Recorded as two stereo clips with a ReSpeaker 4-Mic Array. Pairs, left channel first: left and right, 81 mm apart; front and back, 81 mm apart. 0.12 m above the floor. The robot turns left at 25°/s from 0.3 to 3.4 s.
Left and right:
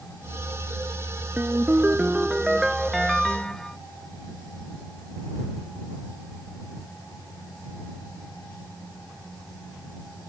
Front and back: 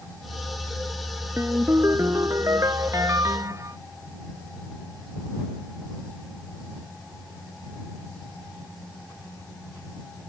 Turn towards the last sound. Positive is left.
turn(degrees=165)